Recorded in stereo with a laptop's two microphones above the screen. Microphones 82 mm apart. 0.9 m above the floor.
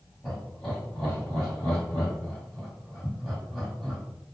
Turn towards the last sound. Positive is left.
turn(degrees=5)  # may be behind; listen again after turning